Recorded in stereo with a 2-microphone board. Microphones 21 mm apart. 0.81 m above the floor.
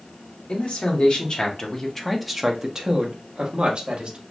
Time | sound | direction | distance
0.5 | a man speaking | 60° left (ahead or behind) | 1.0 m